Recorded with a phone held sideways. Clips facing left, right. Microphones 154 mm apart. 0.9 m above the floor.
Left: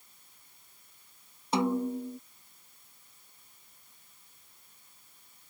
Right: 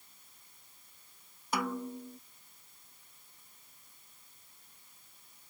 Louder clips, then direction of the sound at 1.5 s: Left 7 dB; 25° left (ahead or behind).